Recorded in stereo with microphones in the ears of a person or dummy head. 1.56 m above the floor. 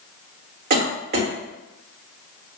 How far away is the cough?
About 1.1 m.